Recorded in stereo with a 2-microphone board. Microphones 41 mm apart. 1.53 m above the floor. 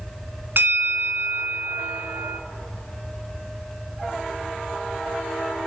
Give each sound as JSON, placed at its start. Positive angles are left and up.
{"t": 0.6, "sound": "a bell", "side_deg": -55, "distance_m": 0.7}